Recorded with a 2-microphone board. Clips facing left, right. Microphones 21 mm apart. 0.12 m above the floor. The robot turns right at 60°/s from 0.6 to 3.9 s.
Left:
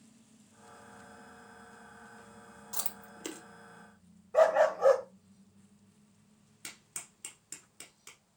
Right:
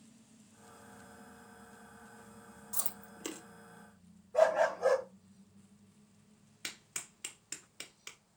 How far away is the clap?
About 1.4 m.